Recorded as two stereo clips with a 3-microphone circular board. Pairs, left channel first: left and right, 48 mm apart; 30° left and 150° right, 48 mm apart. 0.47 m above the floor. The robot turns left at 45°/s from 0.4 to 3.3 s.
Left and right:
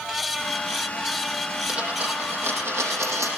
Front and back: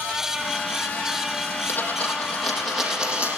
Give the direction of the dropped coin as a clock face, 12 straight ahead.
1 o'clock.